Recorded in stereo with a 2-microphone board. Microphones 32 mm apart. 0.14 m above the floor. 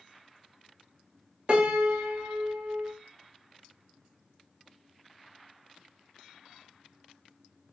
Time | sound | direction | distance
1.5 | a piano | 45° right (ahead or behind) | 0.8 m